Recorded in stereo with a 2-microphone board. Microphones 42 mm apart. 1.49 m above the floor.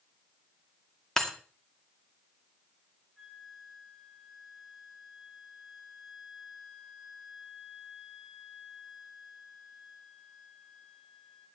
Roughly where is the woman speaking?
I don't hear a woman speaking.